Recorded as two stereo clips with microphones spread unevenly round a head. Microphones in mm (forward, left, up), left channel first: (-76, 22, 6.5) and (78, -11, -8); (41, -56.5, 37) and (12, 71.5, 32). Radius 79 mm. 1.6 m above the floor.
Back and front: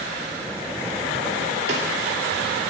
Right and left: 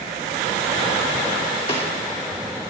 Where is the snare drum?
35° right, 2.5 m.